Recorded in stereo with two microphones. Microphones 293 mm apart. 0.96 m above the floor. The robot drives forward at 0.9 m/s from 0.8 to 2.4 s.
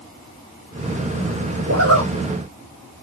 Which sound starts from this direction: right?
A zipper, at 1.7 s.